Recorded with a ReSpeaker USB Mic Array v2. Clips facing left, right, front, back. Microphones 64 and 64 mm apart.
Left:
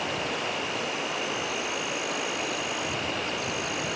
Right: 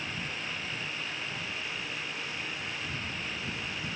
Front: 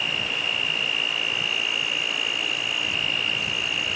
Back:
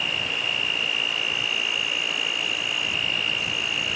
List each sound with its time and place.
0.0 s an insect: 90° left